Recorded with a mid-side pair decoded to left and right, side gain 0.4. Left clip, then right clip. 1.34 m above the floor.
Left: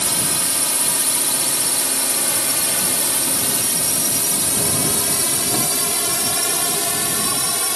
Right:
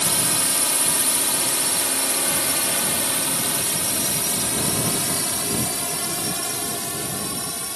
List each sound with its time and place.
0.0 s a drone: 10° left; by 7.8 s 65° left